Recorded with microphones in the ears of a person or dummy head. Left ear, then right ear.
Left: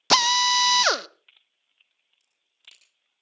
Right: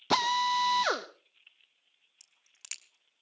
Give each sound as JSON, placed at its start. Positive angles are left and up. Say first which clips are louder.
{"t": 0.1, "sound": "a drill", "louder": "left 8 dB", "side_deg": 45, "distance_m": 0.7}
{"t": 2.2, "sound": "a crack", "louder": "left 3 dB", "side_deg": -40, "distance_m": 1.2}